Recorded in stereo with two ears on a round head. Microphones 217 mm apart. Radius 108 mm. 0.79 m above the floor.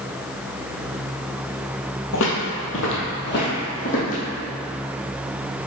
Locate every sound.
2.1 s footsteps: 65° left (ahead or behind), 1.6 m; by 4.2 s 35° left (ahead or behind), 2.5 m